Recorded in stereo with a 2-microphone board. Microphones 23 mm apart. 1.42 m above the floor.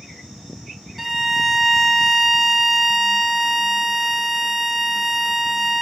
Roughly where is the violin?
Centre.